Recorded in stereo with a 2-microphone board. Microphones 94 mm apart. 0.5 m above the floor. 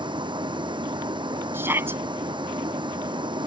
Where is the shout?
25° right (ahead or behind).